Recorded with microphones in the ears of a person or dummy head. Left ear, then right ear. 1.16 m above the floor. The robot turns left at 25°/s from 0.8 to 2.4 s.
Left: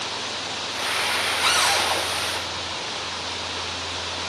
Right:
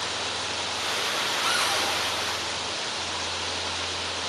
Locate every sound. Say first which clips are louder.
1.4 s a cupboard door: left 6 dB; 30° left (ahead or behind), 5 m; by 1.9 s 40° left (ahead or behind), 5 m